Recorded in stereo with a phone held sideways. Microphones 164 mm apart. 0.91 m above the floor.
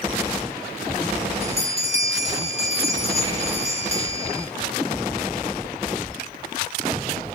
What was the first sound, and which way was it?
A bell, 40° left (ahead or behind).